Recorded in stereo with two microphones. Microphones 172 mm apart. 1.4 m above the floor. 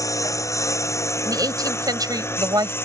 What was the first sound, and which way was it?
A lawn mower, 20° left (ahead or behind).